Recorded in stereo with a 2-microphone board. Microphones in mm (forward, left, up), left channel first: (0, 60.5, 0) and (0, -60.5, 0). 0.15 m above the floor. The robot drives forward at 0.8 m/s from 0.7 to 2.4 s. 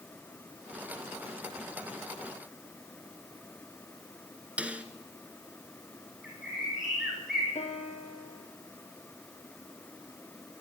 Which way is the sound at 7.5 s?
65° left (ahead or behind).